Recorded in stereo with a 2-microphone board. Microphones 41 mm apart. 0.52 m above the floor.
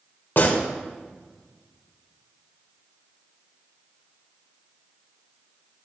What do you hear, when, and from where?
0.4 s a gunshot: 60° left (ahead or behind), 2 m